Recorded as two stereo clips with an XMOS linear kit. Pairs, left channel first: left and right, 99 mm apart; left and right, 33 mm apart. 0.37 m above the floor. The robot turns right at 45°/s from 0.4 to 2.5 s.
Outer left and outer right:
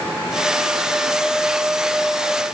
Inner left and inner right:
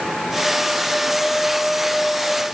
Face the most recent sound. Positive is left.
No sound to turn to.